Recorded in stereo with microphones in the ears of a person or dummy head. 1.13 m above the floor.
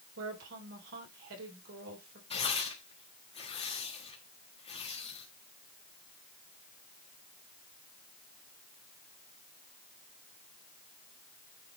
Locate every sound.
0.2 s a woman speaking: 75° right (ahead or behind), 3.5 m
2.3 s tearing paper: 30° left (ahead or behind), 1.5 m